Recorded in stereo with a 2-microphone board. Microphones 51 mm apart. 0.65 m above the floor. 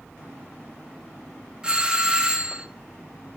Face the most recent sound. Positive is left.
turn(degrees=-20)  # may be behind; listen again after turning